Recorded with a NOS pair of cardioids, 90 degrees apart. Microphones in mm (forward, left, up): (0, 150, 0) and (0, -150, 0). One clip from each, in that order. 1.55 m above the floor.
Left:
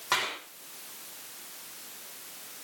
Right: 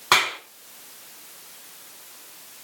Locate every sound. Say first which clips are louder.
0.1 s a clap: right 10 dB; 60° right, 4.5 m